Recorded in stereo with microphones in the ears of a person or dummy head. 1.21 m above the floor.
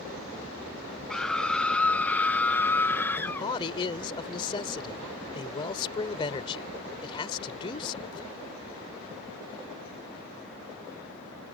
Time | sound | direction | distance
1.1 | a scream | 5° left (ahead or behind) | ?
3.2 | a man speaking | 30° left (ahead or behind) | ?